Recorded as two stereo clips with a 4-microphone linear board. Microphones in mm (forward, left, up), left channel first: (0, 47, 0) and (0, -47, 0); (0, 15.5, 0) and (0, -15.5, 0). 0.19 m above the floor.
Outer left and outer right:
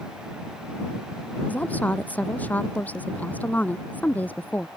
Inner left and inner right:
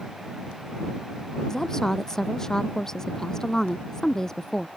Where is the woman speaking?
15° left (ahead or behind).